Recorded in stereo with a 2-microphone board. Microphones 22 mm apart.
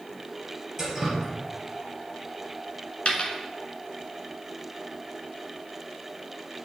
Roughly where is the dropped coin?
Left.